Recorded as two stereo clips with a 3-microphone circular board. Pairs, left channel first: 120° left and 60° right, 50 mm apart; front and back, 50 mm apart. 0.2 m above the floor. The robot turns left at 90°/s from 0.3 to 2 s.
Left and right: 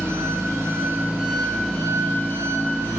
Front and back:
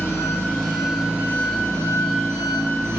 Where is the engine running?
50° right, 3.5 m; by 3.0 s 160° left, 3.5 m.